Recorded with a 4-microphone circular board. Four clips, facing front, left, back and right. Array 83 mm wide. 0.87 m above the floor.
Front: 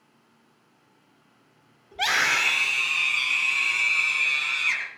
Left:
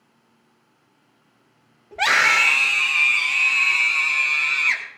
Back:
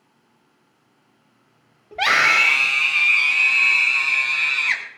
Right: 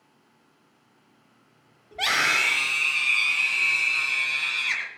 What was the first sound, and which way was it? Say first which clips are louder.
A scream: left 6 dB, back 7 dB; 160° left.